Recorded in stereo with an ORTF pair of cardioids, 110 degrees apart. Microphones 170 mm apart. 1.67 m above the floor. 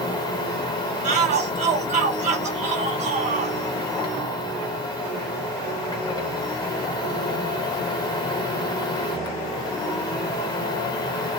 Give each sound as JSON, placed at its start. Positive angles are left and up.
{"t": 0.0, "sound": "a machine running", "azimuth_deg": 25, "distance_m": 1.2}
{"t": 1.0, "sound": "a shout", "azimuth_deg": -45, "distance_m": 1.7}